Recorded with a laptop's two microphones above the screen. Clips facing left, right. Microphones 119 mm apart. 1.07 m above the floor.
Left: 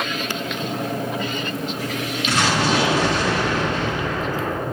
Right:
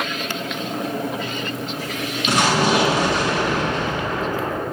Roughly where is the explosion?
Centre.